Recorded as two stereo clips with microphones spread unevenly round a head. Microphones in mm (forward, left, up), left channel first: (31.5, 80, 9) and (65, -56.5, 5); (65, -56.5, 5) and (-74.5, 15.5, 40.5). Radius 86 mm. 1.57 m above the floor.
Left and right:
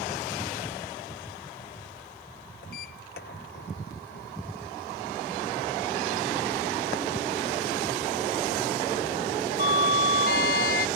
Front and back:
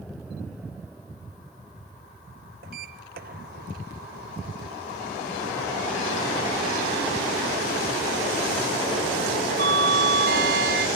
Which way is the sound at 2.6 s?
125° left.